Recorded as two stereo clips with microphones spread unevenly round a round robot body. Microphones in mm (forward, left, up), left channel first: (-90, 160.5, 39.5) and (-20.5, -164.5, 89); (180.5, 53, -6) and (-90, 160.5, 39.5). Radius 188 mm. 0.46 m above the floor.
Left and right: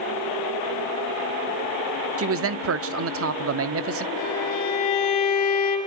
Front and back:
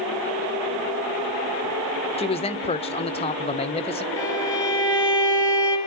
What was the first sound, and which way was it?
A man speaking, 55° right.